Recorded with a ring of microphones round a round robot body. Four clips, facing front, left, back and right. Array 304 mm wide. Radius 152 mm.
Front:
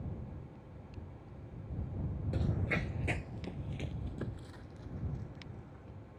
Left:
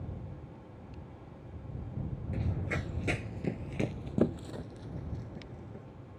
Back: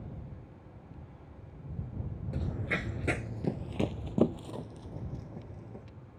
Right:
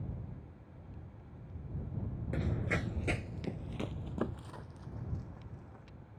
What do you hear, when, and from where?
2.3 s running footsteps: 70° right; by 5.8 s 145° left